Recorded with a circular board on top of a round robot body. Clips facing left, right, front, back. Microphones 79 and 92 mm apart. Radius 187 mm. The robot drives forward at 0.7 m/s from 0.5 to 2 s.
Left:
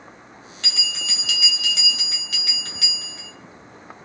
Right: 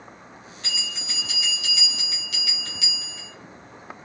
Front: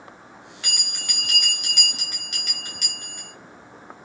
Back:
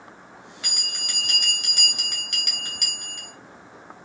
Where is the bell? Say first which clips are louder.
Left 3 dB, front 2 dB; 90° left, 0.8 m; by 3.3 s 140° left, 1.3 m.